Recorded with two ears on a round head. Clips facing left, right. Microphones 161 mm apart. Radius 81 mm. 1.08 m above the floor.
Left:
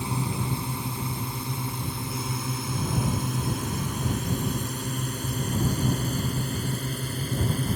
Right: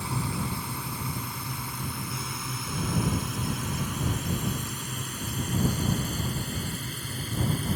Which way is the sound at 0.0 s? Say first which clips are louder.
Left 2 dB; 15° left (ahead or behind).